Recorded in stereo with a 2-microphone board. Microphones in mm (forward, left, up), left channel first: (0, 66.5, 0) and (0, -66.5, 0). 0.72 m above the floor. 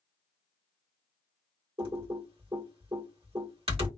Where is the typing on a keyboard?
40° right (ahead or behind), 1.8 m.